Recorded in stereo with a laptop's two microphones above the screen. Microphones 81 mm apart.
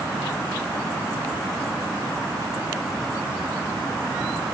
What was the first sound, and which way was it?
Only background noise.